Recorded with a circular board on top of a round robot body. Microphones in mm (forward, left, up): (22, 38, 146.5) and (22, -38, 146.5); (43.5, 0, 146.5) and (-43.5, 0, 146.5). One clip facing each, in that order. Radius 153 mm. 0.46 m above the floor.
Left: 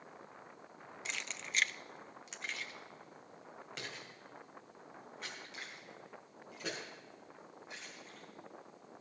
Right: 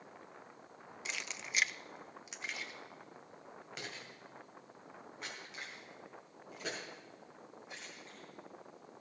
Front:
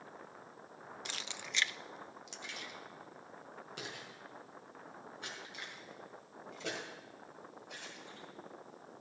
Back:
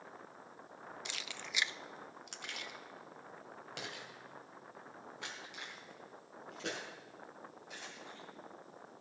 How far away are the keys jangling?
About 0.8 m.